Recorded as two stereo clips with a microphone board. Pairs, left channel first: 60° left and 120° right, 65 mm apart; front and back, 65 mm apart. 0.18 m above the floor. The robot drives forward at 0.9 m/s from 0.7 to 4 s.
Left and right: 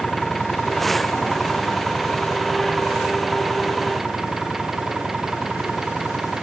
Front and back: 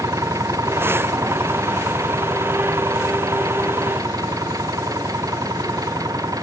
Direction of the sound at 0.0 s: 150° left.